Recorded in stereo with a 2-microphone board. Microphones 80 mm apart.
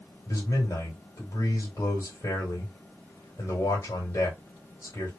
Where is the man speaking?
40° left (ahead or behind), 1.9 m.